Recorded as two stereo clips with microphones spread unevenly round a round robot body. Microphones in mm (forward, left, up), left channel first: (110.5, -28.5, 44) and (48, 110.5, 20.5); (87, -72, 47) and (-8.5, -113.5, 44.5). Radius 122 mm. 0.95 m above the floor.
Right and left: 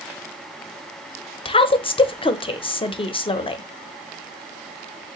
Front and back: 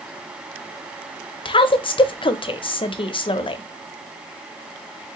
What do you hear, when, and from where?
1.4 s a woman speaking: 5° right, 0.6 m